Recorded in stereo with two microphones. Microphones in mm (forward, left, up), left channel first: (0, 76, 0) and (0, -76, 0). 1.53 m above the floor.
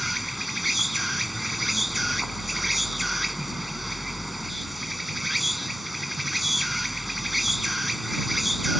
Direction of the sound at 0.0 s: Centre (ahead or behind).